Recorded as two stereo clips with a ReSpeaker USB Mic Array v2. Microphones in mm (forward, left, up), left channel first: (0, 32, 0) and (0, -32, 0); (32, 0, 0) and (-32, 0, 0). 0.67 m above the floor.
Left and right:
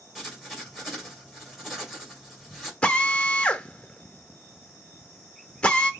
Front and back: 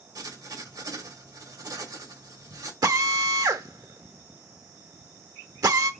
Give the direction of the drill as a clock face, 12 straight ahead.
7 o'clock.